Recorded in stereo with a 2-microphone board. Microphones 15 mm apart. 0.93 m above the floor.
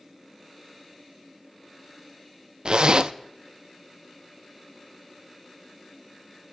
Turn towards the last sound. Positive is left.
turn(degrees=-55)  # may be behind; listen again after turning